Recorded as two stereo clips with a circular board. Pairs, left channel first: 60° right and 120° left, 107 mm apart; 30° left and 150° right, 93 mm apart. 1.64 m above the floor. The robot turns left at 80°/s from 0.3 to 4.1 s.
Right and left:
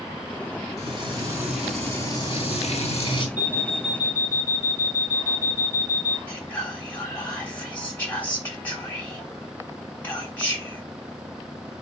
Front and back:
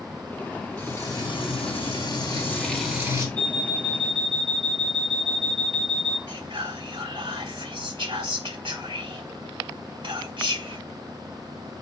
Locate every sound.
0.8 s frying: 105° left, 4 m; by 3.3 s 95° right, 4 m
3.4 s an alarm clock: 110° right, 3.5 m; by 6.2 s 165° right, 3.5 m
6.3 s whispering: 135° right, 4 m